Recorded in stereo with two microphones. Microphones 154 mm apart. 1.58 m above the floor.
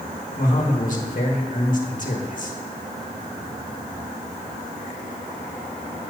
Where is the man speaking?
55° left (ahead or behind), 1.3 m.